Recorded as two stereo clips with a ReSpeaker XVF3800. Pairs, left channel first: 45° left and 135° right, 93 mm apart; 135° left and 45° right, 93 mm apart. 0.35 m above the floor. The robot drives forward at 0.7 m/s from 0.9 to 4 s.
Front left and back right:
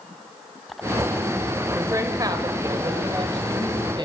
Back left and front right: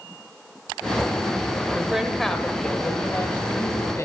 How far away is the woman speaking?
About 1.0 m.